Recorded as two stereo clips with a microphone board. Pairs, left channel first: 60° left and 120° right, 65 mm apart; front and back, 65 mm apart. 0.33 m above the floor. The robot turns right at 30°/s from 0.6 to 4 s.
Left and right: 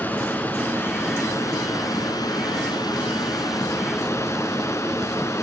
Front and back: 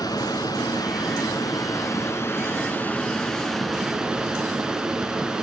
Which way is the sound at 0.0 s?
Straight ahead.